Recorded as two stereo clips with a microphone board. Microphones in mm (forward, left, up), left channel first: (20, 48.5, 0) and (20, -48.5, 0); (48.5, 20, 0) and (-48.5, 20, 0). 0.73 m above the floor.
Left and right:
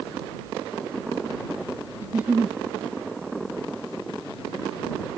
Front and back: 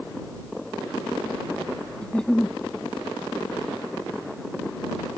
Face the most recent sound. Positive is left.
turn(degrees=-60)